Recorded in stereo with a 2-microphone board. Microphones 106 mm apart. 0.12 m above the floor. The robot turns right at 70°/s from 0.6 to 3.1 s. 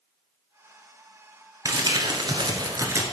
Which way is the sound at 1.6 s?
130° right.